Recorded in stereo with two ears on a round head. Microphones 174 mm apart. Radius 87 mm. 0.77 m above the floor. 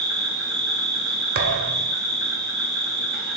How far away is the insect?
About 2.0 m.